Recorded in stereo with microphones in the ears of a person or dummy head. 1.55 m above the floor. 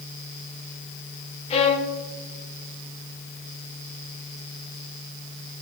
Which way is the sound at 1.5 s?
35° left (ahead or behind).